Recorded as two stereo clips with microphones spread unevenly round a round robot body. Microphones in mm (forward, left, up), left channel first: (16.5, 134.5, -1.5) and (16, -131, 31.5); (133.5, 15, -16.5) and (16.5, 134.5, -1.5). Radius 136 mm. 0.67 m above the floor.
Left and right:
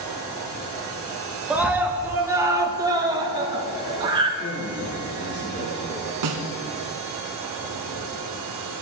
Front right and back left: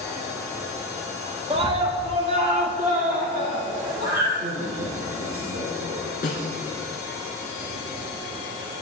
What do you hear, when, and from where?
1.5 s a scream: 175° left, 1.1 m; by 4.3 s 165° right, 2 m
4.4 s a man speaking: 130° left, 1.9 m
6.2 s a snare drum: 105° right, 1.7 m